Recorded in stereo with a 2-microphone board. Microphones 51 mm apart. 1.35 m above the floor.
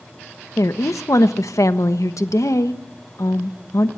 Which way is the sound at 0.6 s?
80° left.